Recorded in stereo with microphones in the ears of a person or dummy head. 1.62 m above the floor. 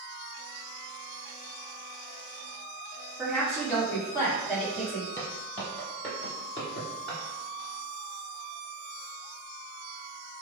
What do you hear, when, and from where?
3.2 s a woman speaking: 5° left (ahead or behind), 1.3 m
5.2 s footsteps: 15° left (ahead or behind), 1.8 m; by 7.2 s 20° left (ahead or behind), 1.9 m